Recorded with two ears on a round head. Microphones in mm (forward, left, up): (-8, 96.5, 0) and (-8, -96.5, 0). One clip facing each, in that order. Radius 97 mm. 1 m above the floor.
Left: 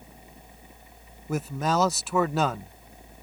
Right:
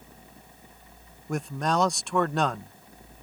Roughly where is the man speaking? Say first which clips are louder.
Left 1 dB; centre.